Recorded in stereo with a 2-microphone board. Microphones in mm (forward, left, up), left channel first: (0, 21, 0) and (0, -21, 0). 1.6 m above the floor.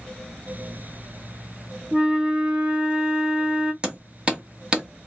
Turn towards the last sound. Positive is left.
turn(degrees=-20)  # may be behind; listen again after turning